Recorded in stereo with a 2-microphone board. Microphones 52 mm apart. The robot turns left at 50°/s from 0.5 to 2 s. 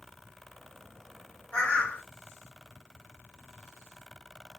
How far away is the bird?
About 1.4 m.